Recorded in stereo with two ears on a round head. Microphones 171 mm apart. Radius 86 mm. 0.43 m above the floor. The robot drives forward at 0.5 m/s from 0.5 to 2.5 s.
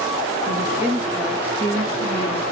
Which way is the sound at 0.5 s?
5° right (ahead or behind).